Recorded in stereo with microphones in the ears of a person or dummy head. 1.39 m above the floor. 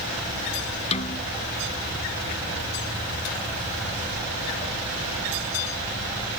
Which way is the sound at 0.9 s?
30° left (ahead or behind).